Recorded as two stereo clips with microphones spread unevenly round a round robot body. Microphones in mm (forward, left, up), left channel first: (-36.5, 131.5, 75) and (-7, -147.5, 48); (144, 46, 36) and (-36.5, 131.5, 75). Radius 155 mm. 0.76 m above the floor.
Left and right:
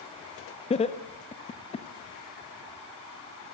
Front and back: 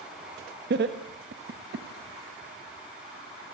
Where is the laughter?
160° left, 1.3 m.